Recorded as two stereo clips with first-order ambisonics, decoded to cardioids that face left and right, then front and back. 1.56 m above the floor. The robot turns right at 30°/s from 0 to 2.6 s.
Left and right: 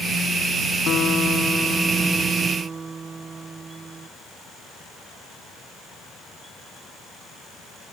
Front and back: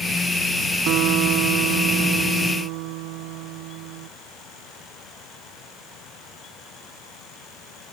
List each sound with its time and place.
0.9 s a guitar: 145° left; by 4.1 s 165° right